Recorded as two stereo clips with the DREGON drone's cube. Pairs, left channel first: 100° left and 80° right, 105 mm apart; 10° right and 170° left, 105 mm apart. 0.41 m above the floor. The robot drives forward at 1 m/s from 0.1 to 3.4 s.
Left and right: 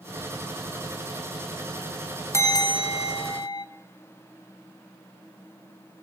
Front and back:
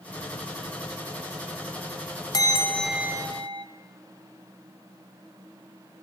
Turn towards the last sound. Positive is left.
turn(degrees=135)